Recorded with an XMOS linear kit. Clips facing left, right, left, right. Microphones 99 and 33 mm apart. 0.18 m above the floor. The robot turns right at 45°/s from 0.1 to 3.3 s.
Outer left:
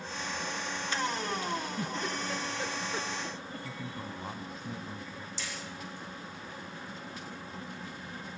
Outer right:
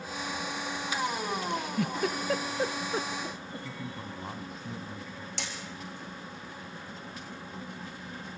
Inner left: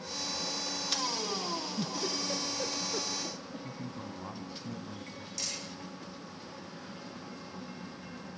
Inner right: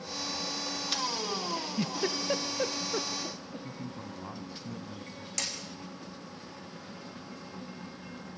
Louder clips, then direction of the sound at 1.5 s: Outer right 3 dB, inner right 2 dB; 75° right (ahead or behind).